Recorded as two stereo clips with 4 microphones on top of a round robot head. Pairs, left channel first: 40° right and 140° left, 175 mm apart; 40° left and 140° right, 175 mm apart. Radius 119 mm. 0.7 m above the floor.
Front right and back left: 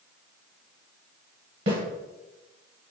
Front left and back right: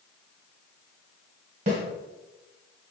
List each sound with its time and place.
1.7 s a snare drum: 165° left, 1.4 m